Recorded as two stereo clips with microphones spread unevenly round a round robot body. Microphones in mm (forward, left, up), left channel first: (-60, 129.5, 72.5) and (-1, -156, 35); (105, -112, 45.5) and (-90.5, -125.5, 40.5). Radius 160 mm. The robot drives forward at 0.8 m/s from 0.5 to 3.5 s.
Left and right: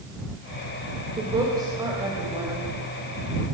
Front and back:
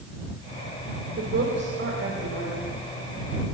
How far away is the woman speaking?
About 4 m.